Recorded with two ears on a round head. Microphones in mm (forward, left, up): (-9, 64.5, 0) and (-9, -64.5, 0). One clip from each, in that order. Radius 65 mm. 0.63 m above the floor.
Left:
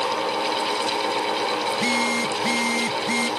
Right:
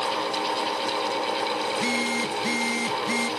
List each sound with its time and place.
1.7 s a phone buzzing: centre (ahead or behind)